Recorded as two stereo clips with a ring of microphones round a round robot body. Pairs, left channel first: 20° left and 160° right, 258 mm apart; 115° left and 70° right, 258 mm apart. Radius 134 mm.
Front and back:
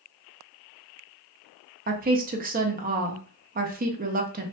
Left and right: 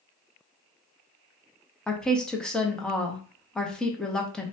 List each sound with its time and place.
1.9 s a woman speaking: 165° right, 0.6 m